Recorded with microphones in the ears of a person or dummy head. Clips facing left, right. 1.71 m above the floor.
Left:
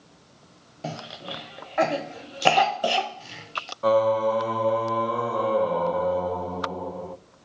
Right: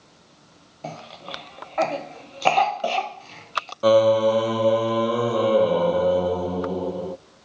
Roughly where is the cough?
Centre.